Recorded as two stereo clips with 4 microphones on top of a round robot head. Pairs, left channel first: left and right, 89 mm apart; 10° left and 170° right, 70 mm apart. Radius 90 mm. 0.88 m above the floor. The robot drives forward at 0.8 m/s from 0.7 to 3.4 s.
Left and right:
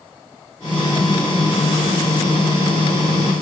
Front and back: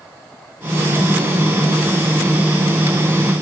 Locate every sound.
Only background noise.